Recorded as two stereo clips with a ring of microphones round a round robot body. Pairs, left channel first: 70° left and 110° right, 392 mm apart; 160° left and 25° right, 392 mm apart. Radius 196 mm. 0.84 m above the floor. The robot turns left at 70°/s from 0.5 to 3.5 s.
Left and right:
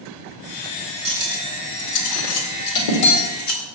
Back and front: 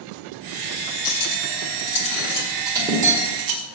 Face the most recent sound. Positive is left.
turn(degrees=10)